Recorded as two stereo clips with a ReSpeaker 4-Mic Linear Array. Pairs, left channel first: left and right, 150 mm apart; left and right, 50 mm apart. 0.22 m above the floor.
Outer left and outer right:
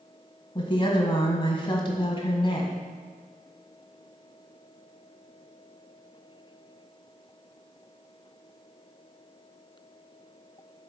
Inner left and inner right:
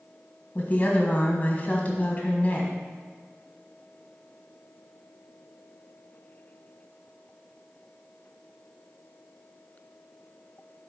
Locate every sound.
0.6 s a woman speaking: 35° left (ahead or behind), 1.5 m